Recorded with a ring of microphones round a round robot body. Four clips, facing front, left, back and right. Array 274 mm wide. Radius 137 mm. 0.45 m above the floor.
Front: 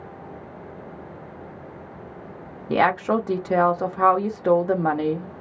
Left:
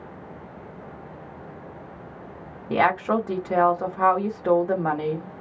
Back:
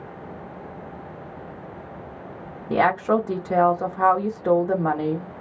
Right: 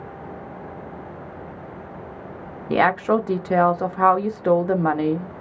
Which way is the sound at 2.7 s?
70° right.